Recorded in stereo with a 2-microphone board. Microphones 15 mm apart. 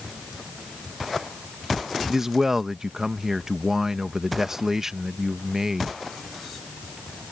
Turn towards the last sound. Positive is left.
turn(degrees=-35)  # may be behind; listen again after turning